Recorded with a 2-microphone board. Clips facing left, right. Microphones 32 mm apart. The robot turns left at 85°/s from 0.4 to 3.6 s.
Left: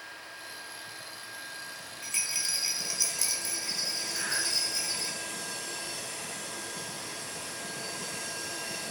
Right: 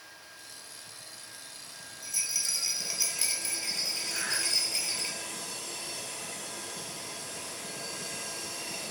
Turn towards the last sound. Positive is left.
turn(degrees=-15)  # may be behind; listen again after turning